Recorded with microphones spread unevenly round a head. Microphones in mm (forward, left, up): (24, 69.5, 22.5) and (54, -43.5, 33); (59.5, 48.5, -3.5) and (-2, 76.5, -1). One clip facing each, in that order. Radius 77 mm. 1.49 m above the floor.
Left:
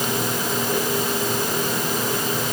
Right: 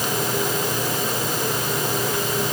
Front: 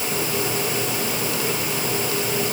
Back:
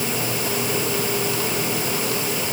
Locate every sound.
Only background noise.